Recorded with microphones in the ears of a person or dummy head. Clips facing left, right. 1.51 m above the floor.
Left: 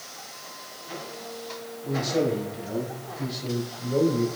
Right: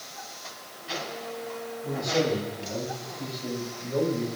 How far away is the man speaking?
About 5.5 m.